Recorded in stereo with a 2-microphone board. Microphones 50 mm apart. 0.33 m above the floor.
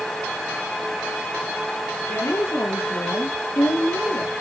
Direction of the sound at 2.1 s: 80° left.